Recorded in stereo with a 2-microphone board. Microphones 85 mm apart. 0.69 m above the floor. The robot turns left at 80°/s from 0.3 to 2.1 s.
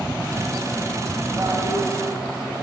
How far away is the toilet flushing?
About 4.5 m.